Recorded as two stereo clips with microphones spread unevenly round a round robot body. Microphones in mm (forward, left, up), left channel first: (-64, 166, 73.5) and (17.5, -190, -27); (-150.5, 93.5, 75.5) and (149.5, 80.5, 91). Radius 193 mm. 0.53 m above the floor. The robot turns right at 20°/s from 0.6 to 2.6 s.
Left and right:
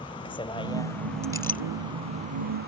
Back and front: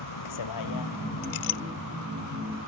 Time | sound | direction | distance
0.0 | a vehicle | straight behind | ?
1.2 | a clink | straight behind | ?